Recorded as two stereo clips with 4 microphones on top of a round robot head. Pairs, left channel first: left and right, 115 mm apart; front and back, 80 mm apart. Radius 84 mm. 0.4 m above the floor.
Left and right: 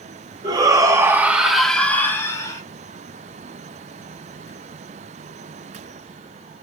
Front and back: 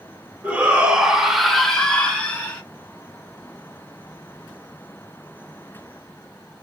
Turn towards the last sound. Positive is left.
turn(degrees=60)